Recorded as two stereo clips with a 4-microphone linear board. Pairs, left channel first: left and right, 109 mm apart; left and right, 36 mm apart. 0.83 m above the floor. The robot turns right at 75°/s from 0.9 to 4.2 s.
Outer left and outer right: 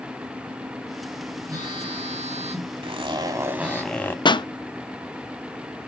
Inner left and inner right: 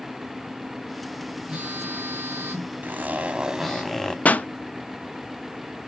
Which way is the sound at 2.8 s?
75° right.